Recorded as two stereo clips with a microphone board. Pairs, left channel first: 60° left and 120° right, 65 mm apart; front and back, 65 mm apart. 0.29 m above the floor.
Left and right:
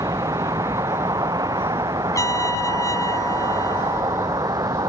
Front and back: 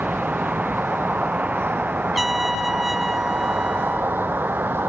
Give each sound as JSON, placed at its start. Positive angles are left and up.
{"t": 0.0, "sound": "a vehicle", "azimuth_deg": -110}
{"t": 2.1, "sound": "a trumpet", "azimuth_deg": 90}